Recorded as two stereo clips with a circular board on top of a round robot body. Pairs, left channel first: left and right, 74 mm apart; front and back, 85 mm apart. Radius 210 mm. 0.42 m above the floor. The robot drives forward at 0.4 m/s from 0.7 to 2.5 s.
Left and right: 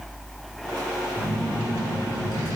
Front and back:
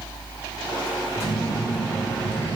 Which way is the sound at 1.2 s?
55° right.